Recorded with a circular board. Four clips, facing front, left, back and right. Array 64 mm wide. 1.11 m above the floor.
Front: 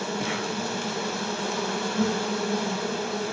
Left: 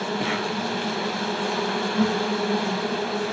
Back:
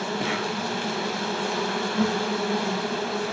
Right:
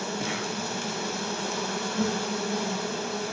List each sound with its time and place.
0.0 s an insect: 115° left, 1.0 m